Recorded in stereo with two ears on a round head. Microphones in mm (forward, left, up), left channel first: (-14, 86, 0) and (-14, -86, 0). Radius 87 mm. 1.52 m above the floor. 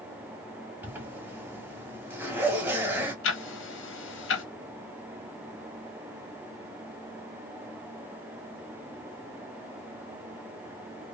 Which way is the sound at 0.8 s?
10° right (ahead or behind).